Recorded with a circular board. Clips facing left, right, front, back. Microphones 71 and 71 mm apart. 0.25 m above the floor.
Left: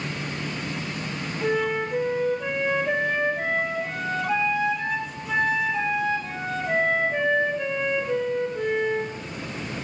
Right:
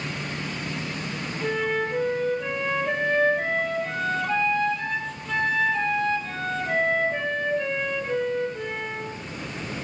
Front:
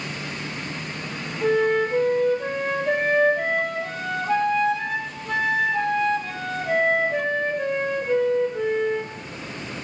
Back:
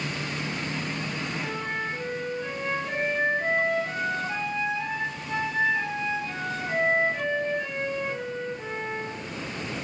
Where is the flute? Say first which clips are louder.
Left 1 dB, front 17 dB; 10° left, 4 m.